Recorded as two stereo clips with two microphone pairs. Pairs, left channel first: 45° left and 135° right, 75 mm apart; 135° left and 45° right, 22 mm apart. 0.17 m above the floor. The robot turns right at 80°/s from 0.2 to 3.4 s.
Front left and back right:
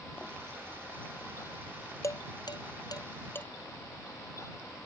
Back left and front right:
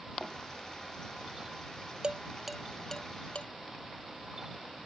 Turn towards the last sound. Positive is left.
turn(degrees=105)